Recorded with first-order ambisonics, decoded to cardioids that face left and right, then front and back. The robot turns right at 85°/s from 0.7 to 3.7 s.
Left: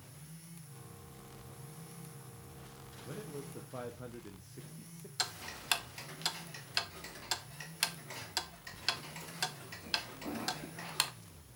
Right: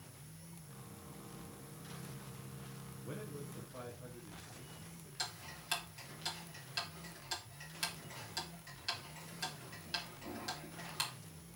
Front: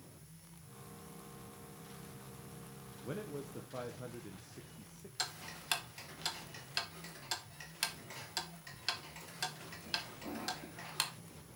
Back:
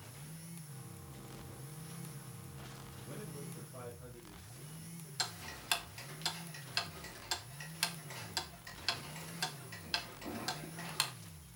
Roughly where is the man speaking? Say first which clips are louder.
Left 2 dB, front 7 dB; ahead.